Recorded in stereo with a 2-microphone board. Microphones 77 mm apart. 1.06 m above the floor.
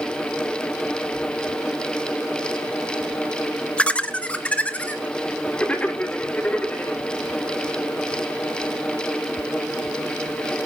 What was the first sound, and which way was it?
Laughter, 15° left (ahead or behind).